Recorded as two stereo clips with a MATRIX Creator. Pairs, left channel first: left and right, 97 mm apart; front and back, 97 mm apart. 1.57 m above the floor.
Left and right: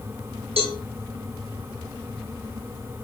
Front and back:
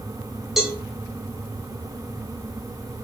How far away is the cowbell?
About 0.7 m.